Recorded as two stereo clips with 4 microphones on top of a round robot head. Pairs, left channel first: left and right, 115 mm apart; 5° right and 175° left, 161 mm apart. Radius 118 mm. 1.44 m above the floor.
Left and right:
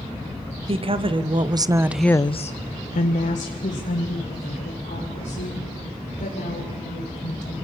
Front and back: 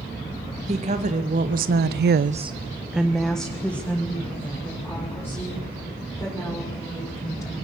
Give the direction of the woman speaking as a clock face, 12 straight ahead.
4 o'clock.